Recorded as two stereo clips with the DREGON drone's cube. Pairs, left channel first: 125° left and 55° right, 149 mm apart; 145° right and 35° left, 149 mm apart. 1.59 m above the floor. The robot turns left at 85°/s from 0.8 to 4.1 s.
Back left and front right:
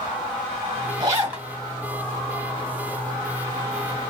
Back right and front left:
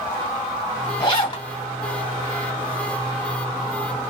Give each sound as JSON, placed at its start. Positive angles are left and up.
{"t": 1.0, "sound": "a zipper", "azimuth_deg": -100, "distance_m": 1.7}